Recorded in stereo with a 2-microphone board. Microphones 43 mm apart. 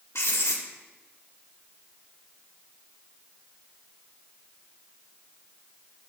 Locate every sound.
0.1 s writing: 75° left (ahead or behind), 0.9 m